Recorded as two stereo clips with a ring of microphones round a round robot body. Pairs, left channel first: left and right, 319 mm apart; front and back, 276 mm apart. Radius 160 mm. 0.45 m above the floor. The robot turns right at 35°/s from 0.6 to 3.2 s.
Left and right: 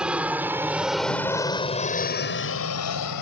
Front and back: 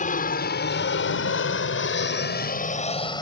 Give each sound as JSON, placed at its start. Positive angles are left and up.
{"t": 0.0, "sound": "an aircraft", "azimuth_deg": -5}